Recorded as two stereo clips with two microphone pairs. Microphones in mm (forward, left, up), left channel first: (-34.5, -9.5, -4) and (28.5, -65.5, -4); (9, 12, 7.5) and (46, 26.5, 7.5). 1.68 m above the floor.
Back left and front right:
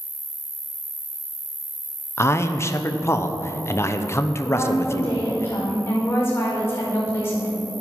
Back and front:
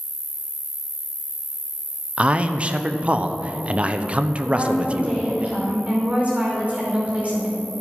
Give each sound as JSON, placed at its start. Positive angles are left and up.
{"t": 0.0, "sound": "an insect", "azimuth_deg": 0, "distance_m": 1.2}
{"t": 2.2, "sound": "a man speaking", "azimuth_deg": 80, "distance_m": 0.9}
{"t": 4.5, "sound": "a woman speaking", "azimuth_deg": 75, "distance_m": 5.5}